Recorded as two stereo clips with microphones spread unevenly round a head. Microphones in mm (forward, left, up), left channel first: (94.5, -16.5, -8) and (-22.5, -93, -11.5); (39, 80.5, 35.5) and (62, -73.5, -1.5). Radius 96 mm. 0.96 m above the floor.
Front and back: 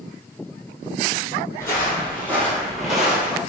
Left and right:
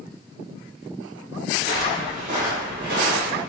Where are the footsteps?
30° right, 1.8 m; by 3.4 s 70° right, 1.4 m.